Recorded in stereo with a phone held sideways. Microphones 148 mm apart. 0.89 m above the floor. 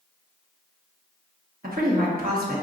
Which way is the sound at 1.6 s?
65° right (ahead or behind).